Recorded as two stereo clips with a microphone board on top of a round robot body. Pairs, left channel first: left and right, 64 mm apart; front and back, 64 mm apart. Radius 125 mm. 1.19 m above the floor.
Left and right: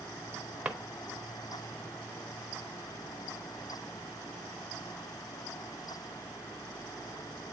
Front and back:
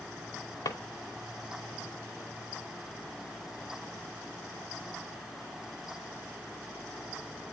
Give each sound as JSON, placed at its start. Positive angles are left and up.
{"t": 0.7, "sound": "a drawer", "azimuth_deg": -15, "distance_m": 0.8}